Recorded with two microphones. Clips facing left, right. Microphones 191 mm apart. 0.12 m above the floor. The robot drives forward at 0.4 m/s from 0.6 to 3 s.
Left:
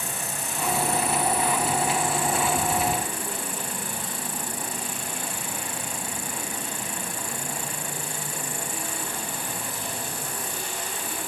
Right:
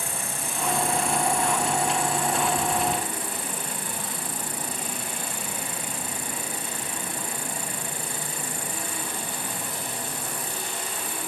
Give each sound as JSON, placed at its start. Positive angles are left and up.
{"t": 0.0, "sound": "an insect", "side_deg": -55}